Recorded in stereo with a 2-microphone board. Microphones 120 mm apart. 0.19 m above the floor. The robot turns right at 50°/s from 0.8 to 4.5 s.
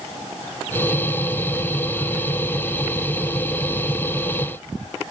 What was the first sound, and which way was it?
Only background noise.